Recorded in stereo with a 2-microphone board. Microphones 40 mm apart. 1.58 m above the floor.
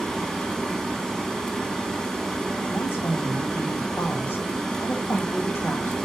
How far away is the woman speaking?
About 1.8 m.